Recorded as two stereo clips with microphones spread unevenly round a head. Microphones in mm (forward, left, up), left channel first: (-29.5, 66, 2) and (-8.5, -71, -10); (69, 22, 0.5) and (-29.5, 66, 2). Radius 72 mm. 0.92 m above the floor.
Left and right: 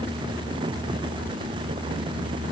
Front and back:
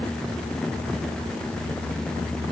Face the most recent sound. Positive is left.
No sound to turn to.